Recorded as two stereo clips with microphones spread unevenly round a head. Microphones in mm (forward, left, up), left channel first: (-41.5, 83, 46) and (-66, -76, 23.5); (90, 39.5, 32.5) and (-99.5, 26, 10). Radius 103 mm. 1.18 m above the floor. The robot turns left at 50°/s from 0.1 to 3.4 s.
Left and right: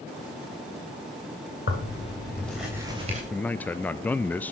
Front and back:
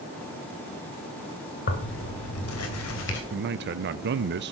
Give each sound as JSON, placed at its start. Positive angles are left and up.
{"t": 1.7, "sound": "tearing paper", "azimuth_deg": 35, "distance_m": 2.5}
{"t": 3.3, "sound": "a man speaking", "azimuth_deg": 170, "distance_m": 0.5}